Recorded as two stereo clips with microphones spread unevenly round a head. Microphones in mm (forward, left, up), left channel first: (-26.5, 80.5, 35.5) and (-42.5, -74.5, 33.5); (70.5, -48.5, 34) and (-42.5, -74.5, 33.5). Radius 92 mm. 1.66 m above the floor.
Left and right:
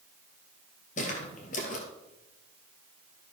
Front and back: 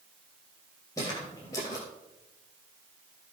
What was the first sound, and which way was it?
Footsteps, 75° left.